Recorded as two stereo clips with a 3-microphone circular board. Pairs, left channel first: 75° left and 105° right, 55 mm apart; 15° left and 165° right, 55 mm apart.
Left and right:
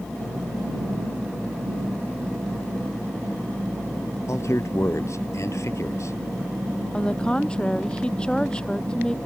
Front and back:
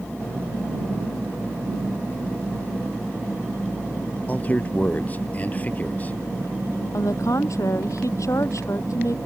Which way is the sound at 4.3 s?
70° left.